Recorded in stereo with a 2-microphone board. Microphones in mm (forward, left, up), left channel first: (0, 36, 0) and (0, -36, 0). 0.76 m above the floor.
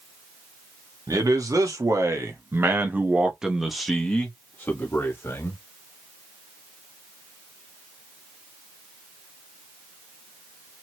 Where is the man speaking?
55° right (ahead or behind), 1.6 m; by 5.6 s 35° left (ahead or behind), 1.6 m.